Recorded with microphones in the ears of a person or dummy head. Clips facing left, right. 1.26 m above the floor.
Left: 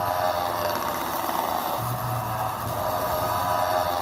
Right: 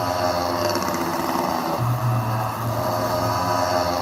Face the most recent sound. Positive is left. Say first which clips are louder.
# right 3 dB
turn(degrees=-50)  # may be behind; listen again after turning